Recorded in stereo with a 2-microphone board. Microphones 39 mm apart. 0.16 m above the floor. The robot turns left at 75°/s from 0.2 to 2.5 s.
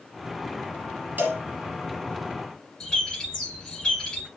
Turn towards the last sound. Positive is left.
turn(degrees=15)  # may be behind; listen again after turning